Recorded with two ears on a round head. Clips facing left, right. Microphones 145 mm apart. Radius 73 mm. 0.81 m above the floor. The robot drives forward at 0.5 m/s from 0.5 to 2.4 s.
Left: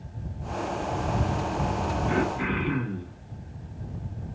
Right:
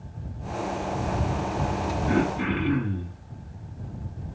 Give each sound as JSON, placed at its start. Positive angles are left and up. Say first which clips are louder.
{"t": 2.1, "sound": "throat clearing", "louder": "right 4 dB", "side_deg": -35, "distance_m": 2.0}